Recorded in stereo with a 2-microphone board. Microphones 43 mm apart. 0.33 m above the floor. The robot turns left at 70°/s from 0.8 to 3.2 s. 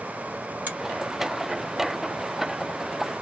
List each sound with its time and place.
0.7 s a finger snap: 40° right (ahead or behind), 1.7 m